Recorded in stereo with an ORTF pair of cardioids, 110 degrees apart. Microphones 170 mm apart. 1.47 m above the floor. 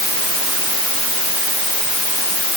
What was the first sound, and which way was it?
Only background noise.